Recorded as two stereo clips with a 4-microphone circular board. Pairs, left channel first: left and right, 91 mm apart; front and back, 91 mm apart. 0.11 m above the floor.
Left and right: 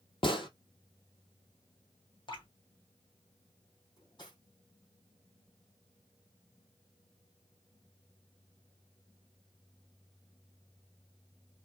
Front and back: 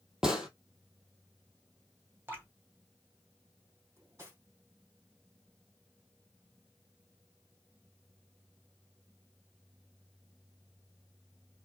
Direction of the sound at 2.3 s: 115° left.